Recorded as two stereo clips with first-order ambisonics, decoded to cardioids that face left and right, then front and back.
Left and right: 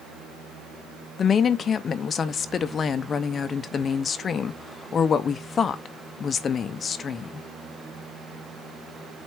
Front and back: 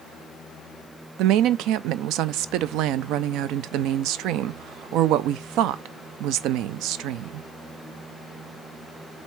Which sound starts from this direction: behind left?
A woman speaking, at 1.2 s.